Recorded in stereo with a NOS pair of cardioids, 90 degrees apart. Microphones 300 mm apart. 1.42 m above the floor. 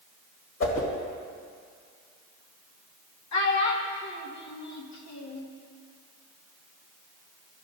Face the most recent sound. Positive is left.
turn(degrees=65)